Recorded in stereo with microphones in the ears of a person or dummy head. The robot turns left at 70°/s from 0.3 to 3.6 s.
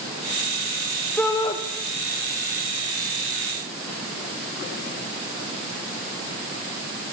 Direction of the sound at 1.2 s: 10° left (ahead or behind).